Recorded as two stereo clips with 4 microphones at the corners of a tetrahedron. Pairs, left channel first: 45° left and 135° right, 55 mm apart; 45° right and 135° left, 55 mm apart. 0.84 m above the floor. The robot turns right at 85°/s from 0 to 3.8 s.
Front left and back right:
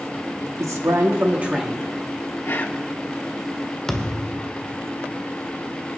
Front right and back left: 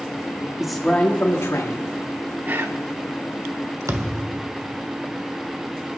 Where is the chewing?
I don't hear chewing.